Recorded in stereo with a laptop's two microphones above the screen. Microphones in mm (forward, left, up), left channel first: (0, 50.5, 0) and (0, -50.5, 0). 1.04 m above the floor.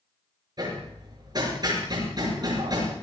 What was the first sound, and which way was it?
Hammering, 40° right (ahead or behind).